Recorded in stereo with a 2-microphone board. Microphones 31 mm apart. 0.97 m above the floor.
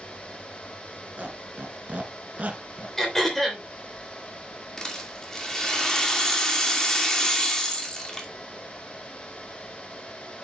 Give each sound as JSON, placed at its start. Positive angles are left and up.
{"t": 1.2, "sound": "a squeak", "side_deg": -45, "distance_m": 2.0}
{"t": 3.0, "sound": "throat clearing", "side_deg": 10, "distance_m": 3.0}
{"t": 4.8, "sound": "a rattle", "side_deg": 20, "distance_m": 2.5}